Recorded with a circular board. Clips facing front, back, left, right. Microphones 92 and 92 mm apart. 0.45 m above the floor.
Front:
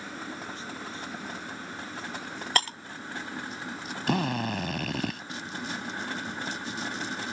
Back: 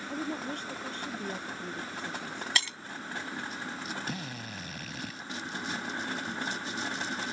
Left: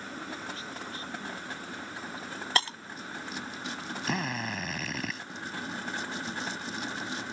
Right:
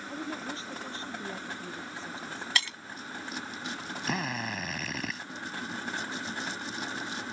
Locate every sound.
0.1 s a woman speaking: 150° right; by 2.5 s 155° right
2.5 s breaking glass: 40° left
4.1 s a drill: straight ahead